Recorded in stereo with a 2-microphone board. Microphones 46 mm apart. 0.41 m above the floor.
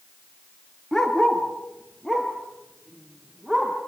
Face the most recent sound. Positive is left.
turn(degrees=0)  # may be behind; listen again after turning